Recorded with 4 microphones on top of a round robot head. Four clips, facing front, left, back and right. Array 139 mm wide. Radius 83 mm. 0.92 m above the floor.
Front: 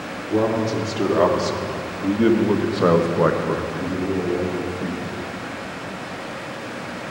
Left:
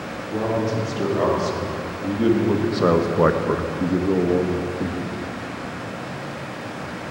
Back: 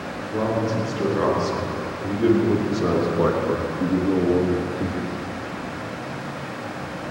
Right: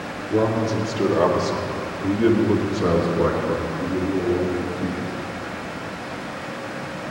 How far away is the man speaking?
About 3.5 m.